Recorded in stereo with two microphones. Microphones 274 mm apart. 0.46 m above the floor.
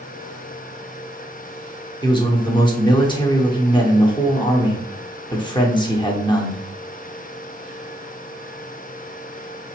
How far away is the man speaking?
About 0.8 m.